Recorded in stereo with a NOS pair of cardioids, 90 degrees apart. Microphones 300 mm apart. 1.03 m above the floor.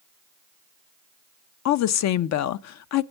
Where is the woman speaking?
65° left, 0.6 m.